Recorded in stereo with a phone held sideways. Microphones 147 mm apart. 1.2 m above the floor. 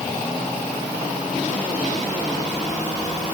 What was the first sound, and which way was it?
Only background noise.